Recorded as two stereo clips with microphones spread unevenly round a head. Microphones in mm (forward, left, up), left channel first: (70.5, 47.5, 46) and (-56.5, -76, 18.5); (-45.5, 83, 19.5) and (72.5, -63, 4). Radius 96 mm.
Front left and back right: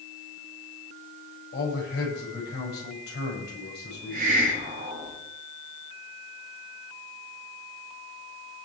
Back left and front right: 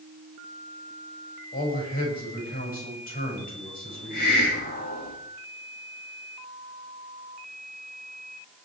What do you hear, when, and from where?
1.5 s a man speaking: 85° left, 6.5 m
3.9 s a hiss: straight behind, 3 m